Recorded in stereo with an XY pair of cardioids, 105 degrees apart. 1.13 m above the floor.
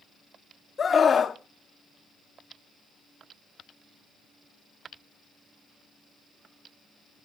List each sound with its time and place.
0.8 s a scream: 35° left, 1.2 m